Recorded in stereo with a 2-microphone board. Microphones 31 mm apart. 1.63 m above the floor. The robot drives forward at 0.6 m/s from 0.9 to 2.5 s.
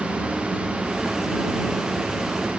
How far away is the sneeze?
I don't hear a sneeze.